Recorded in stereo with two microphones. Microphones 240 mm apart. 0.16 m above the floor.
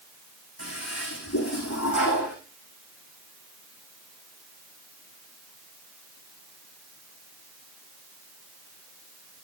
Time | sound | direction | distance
0.6 | a toilet flushing | 80° left | 9 m